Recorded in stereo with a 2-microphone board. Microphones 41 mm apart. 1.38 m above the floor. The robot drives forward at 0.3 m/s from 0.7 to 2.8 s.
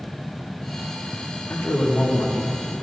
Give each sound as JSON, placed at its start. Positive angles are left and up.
{"t": 1.5, "sound": "a man speaking", "side_deg": 55, "distance_m": 1.0}